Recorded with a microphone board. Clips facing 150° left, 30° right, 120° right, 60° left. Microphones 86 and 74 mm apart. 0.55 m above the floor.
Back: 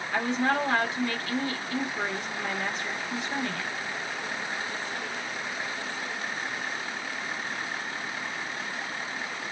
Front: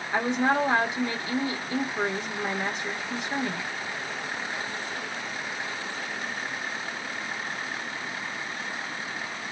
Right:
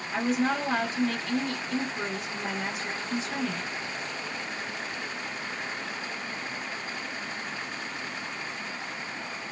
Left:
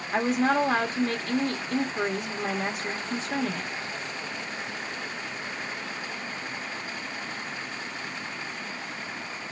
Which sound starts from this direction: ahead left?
A woman speaking, at 0.1 s.